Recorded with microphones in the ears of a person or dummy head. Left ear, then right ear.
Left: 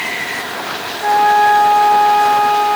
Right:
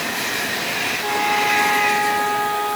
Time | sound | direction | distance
1.0 | a flute | 55° left (ahead or behind) | 5.5 m